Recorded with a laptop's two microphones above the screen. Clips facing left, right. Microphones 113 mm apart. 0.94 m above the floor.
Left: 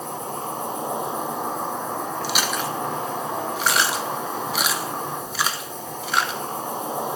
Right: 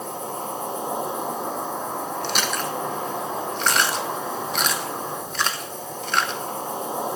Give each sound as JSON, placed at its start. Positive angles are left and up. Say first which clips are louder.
{"t": 0.0, "sound": "an insect", "louder": "even", "side_deg": 50, "distance_m": 3.0}
{"t": 2.2, "sound": "chewing", "louder": "left 1 dB", "side_deg": 5, "distance_m": 0.6}